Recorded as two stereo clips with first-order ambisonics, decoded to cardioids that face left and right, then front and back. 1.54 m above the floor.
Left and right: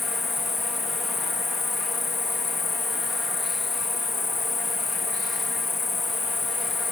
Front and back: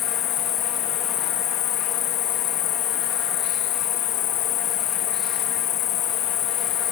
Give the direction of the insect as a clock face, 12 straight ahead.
11 o'clock.